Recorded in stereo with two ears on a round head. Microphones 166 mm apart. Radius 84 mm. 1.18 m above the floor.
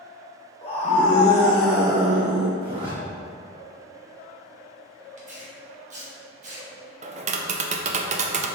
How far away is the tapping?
About 0.5 m.